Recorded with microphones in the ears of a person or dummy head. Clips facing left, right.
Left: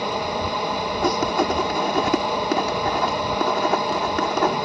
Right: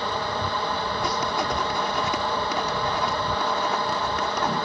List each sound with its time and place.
0.0 s a fan: 20° left (ahead or behind)
1.0 s writing: 60° left (ahead or behind)